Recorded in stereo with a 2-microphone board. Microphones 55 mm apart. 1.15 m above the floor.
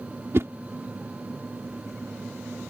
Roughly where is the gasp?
I don't hear a gasp.